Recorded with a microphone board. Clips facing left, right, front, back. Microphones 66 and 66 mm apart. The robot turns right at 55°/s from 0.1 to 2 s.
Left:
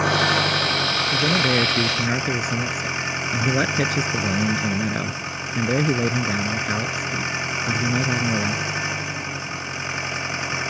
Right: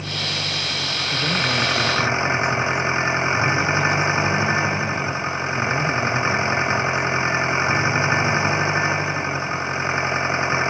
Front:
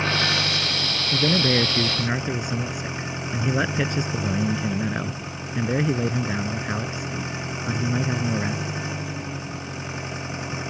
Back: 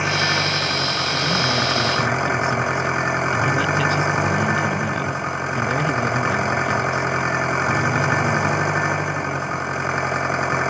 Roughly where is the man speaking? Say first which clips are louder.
Left 1 dB, front 2 dB; ahead.